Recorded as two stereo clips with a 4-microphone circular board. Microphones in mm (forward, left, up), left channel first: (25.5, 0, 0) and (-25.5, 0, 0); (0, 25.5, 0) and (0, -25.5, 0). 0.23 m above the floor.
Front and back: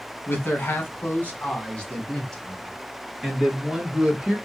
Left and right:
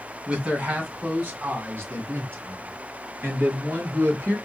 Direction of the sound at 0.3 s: 35° right.